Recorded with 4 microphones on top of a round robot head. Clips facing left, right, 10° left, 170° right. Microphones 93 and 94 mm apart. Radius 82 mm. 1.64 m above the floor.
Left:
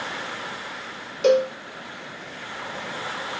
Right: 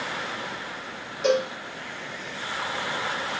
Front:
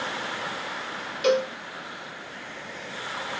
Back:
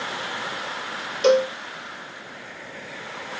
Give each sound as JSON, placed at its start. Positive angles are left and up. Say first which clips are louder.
{"t": 1.2, "sound": "a cowbell", "louder": "left 5 dB, back 5 dB", "azimuth_deg": 140, "distance_m": 1.6}